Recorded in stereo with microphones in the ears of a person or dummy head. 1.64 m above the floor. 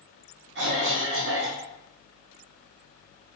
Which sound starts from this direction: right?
A cough, at 0.6 s.